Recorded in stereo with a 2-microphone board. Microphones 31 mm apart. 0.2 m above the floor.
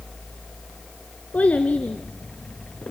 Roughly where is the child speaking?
Left.